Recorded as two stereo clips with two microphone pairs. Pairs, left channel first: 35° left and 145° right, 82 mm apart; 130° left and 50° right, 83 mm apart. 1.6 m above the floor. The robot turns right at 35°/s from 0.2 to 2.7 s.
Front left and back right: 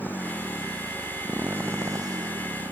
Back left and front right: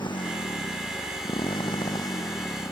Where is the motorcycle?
105° left; by 2.7 s 170° right.